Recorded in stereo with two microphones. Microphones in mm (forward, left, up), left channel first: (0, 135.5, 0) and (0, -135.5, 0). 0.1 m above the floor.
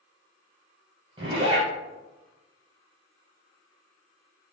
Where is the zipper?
20° right (ahead or behind), 1.6 m.